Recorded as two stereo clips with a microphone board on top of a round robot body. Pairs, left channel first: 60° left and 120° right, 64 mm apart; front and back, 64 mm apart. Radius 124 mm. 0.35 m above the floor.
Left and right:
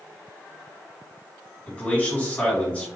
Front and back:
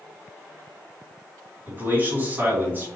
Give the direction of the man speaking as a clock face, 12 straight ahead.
8 o'clock.